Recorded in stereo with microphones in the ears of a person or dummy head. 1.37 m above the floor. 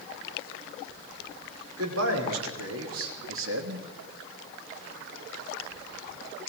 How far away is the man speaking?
About 5.5 m.